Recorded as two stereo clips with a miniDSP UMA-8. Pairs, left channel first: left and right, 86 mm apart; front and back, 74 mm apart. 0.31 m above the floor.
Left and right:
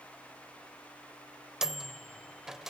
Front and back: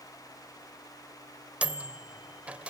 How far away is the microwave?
About 0.7 m.